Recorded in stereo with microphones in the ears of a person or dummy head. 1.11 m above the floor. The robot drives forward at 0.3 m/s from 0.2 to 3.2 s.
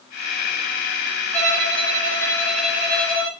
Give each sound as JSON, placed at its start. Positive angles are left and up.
{"t": 1.3, "sound": "a violin", "side_deg": 10, "distance_m": 1.5}